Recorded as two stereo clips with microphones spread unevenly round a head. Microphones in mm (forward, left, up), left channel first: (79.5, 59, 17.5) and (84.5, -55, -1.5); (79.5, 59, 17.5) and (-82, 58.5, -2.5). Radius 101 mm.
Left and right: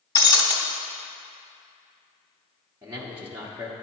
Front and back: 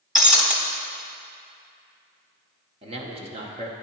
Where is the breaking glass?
85° left, 1.0 m.